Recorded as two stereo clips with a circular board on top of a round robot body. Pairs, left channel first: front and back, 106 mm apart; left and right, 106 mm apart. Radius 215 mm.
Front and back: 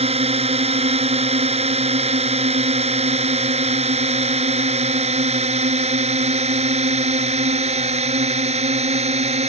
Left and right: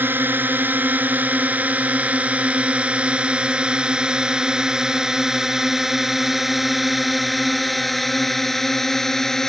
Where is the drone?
160° right; by 9.5 s 175° left.